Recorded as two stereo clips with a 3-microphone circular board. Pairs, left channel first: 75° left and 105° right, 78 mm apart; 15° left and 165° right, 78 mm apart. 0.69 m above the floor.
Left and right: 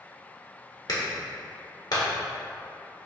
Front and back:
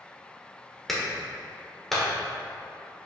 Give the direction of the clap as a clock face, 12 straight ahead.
9 o'clock.